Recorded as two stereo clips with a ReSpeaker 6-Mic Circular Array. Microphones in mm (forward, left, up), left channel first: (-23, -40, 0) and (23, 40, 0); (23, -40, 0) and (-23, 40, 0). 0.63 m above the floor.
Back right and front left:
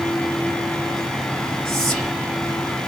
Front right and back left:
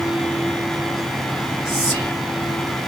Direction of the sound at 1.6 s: 155° left.